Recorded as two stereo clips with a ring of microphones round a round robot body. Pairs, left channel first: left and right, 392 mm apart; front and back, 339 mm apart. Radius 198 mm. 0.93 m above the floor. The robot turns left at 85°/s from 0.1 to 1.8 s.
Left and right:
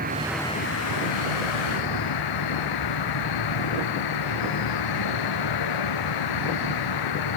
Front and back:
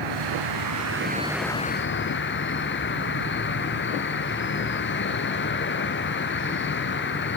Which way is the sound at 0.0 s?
160° right.